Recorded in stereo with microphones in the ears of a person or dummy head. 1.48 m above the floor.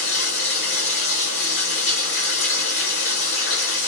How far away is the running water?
About 1.7 m.